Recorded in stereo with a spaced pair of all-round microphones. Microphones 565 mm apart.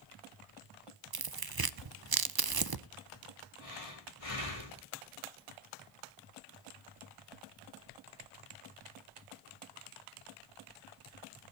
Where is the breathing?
70° left (ahead or behind), 3.5 m.